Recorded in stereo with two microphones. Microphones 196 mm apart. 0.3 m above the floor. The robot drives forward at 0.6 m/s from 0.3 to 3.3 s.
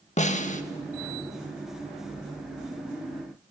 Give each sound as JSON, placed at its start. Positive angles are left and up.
{"t": 0.2, "sound": "a snare drum", "side_deg": 35, "distance_m": 0.5}